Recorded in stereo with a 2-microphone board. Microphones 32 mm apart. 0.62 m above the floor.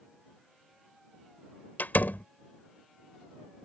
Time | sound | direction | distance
1.8 | a door slam | 75° left (ahead or behind) | ?